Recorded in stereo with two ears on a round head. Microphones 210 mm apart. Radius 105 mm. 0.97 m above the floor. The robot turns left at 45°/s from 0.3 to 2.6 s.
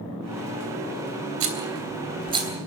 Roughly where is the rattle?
Right.